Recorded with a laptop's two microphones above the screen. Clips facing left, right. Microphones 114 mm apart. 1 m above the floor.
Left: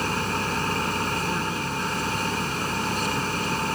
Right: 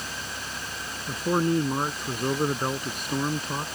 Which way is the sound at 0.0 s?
70° left (ahead or behind).